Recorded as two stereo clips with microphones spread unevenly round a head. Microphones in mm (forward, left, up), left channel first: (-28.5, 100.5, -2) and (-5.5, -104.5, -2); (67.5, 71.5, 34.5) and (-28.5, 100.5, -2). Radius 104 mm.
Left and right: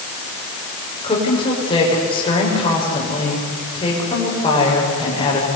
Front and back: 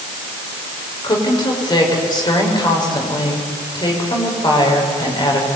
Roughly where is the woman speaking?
Ahead left.